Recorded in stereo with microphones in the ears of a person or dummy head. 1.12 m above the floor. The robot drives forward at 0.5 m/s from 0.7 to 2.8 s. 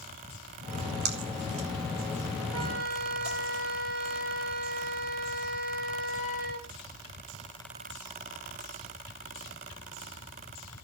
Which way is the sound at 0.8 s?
70° right (ahead or behind).